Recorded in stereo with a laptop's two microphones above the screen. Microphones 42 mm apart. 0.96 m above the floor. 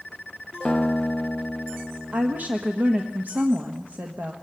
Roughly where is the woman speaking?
Right.